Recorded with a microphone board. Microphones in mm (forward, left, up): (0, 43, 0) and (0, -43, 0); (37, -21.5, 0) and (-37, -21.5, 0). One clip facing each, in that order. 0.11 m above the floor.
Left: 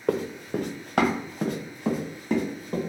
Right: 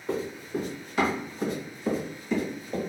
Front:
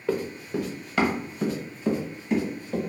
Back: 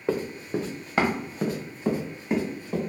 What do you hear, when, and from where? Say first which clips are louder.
0.1 s running footsteps: left 4 dB, even; 110° left, 0.7 m; by 2.8 s 130° left, 2 m